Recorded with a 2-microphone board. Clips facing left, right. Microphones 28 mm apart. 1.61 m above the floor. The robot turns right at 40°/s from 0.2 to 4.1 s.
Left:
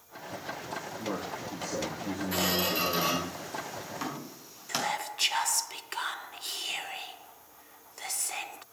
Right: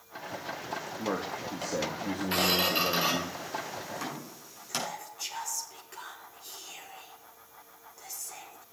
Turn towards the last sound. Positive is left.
turn(degrees=65)  # may be behind; listen again after turning